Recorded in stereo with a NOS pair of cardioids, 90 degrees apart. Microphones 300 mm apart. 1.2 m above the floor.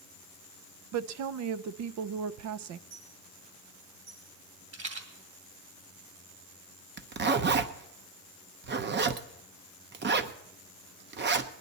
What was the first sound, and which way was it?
A woman speaking, 65° right.